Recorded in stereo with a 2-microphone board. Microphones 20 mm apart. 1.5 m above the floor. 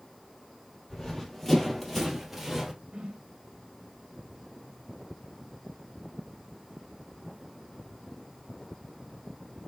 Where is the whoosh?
70° right (ahead or behind), 1.0 m.